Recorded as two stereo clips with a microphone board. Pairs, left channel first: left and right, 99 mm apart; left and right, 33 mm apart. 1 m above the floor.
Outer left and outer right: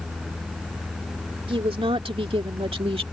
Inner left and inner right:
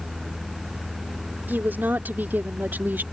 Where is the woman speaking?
70° right (ahead or behind).